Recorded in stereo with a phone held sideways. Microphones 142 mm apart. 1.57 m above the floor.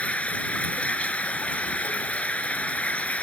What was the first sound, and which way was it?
Running water, 10° left (ahead or behind).